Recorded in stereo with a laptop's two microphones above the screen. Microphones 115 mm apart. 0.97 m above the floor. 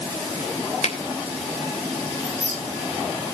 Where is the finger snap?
80° left, 3 m.